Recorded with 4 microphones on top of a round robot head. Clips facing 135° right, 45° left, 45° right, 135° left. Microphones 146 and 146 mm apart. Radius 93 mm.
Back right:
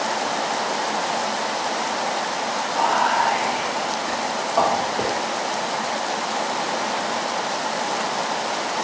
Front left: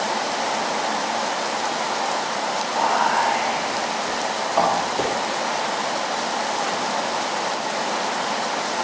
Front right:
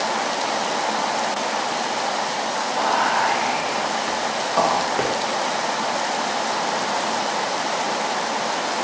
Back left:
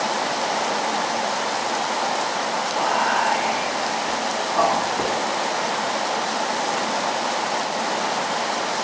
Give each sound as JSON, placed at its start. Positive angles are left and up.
{"t": 2.7, "sound": "whispering", "azimuth_deg": -50, "distance_m": 1.2}